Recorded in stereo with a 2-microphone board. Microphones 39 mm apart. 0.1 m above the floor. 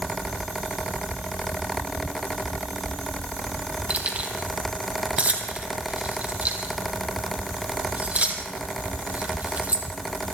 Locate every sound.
3.9 s keys jangling: 40° right (ahead or behind), 2.5 m